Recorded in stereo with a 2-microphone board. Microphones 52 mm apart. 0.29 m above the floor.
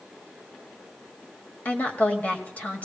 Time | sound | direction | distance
1.6 | a woman speaking | 30° left (ahead or behind) | 1.6 m